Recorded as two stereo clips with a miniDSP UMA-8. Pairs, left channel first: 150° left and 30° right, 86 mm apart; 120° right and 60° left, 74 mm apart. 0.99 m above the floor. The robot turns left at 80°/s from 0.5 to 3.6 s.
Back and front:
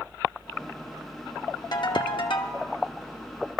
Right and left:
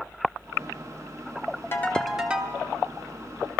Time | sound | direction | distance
1.7 | a ringtone | straight behind | 1.1 m